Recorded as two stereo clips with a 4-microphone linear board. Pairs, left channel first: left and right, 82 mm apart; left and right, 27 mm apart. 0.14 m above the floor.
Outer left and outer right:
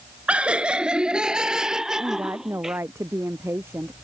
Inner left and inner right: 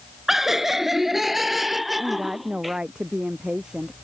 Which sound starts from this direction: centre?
Laughter, at 0.3 s.